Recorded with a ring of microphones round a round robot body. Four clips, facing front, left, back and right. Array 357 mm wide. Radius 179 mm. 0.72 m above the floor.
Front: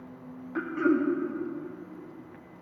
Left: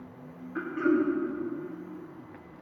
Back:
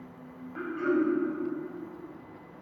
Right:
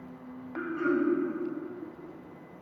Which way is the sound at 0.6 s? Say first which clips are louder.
Left 2 dB, front 2 dB; 25° left.